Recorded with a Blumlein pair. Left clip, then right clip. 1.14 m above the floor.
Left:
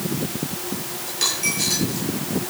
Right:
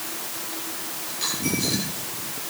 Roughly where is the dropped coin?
Ahead left.